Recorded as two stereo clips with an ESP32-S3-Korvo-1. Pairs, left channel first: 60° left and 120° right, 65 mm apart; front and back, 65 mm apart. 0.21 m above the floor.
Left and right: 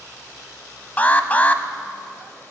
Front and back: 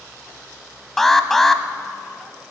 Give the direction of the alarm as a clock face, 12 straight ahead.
9 o'clock.